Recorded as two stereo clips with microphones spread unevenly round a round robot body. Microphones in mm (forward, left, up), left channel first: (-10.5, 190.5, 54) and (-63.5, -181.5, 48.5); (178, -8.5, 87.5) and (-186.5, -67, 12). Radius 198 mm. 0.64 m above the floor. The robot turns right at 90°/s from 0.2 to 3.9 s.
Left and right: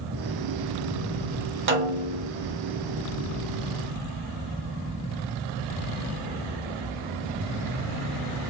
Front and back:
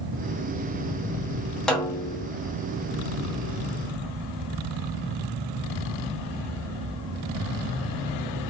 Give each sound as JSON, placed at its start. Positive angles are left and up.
{"t": 1.7, "sound": "a snare drum", "azimuth_deg": -100, "distance_m": 0.9}